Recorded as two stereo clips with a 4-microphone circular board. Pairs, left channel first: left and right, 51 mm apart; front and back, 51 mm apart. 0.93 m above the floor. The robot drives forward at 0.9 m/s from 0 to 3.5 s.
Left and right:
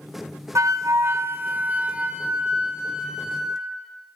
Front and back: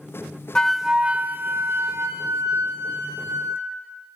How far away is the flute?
About 0.7 m.